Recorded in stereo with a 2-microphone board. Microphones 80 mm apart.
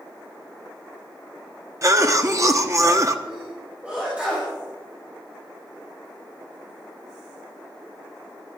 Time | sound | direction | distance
1.8 | a cough | 40° right (ahead or behind) | 1.3 m
3.3 | a sneeze | 15° right (ahead or behind) | 4.5 m